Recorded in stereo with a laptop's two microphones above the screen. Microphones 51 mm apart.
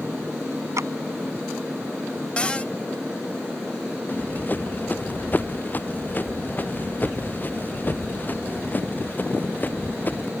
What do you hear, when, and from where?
0.8 s a clap: 70° right (ahead or behind)
2.4 s a cupboard door: 20° left (ahead or behind)
4.1 s running footsteps: 40° left (ahead or behind)